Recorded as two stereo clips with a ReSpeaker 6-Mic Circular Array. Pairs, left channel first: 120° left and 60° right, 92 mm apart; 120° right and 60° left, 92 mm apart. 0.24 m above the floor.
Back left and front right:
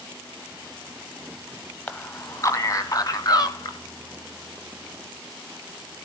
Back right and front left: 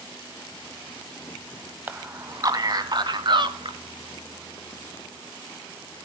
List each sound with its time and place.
1.9 s a man speaking: 85° left, 0.9 m; by 3.8 s 80° left, 2.5 m